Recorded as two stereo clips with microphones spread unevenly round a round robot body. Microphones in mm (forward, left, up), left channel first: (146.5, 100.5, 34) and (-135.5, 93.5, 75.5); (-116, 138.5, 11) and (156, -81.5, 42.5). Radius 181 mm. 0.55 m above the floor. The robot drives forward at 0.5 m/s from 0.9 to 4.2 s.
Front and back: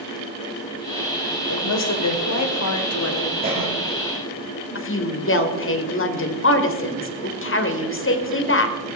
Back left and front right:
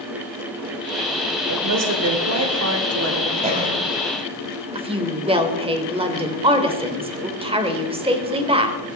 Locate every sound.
1.5 s a woman speaking: 5° left, 3 m; by 3.3 s 10° left, 1.9 m
3.4 s a cough: 110° right, 4 m; by 3.8 s 115° right, 4 m
4.8 s a woman speaking: 40° left, 2.5 m